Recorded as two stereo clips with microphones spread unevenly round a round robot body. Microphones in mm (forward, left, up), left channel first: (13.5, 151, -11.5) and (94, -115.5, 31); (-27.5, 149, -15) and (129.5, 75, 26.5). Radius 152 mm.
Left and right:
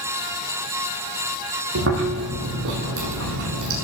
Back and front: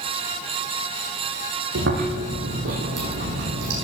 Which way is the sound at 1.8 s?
35° right.